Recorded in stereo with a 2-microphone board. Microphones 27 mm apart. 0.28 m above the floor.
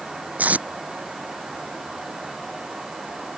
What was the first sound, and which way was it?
Tape being pulled, 70° right (ahead or behind).